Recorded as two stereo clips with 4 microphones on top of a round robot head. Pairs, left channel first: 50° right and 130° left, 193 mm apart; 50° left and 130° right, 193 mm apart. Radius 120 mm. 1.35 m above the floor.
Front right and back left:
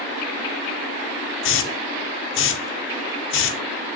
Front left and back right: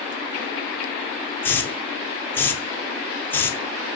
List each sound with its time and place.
1.4 s a hiss: 30° right, 0.6 m